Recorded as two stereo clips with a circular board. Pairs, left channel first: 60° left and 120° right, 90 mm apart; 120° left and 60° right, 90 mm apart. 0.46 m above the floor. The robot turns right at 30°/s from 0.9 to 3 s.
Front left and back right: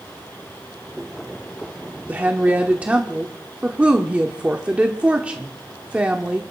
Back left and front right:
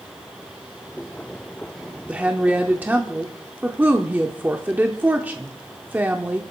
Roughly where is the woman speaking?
Right.